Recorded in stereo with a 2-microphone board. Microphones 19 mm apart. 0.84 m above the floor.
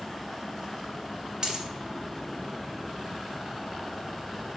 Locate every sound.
1.4 s a dropped coin: 40° right (ahead or behind), 0.8 m